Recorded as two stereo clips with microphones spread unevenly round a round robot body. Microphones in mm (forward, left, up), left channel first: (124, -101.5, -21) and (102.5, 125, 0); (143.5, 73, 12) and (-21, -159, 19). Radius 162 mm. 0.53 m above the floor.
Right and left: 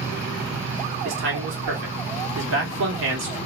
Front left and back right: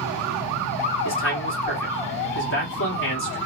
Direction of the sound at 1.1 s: 85° left.